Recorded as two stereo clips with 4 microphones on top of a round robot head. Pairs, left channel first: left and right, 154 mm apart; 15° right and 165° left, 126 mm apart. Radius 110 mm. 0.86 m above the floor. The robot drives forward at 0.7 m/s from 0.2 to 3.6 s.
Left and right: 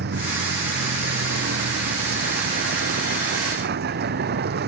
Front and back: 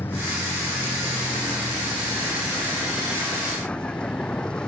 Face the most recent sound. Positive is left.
turn(degrees=-100)